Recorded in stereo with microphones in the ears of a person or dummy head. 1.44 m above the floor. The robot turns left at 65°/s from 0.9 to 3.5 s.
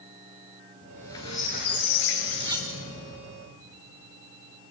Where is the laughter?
I don't hear laughter.